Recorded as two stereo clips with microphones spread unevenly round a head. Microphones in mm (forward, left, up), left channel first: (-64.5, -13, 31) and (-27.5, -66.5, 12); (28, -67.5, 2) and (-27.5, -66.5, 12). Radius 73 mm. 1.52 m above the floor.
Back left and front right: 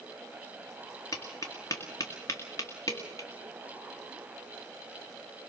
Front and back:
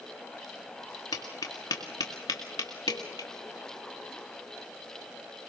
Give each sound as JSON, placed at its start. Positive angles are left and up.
{"t": 1.1, "sound": "tapping", "azimuth_deg": 60, "distance_m": 1.9}